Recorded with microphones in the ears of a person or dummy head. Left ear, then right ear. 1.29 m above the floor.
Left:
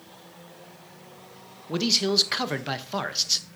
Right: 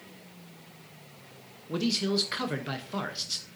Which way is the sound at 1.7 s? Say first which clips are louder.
Left 6 dB; 25° left (ahead or behind).